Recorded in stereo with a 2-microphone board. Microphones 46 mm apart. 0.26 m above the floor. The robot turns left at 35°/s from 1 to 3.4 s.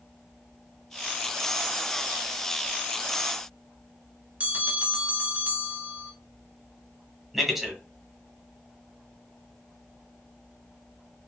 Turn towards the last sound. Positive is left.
turn(degrees=0)  # may be behind; listen again after turning